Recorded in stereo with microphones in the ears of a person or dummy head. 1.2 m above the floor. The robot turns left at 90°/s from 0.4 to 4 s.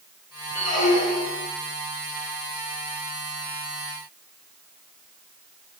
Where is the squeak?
150° left, 3 m; by 1.5 s 65° left, 3 m.